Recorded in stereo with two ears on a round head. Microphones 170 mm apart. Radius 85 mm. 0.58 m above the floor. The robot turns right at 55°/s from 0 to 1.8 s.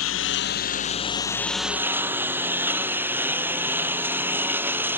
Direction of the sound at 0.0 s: 95° left.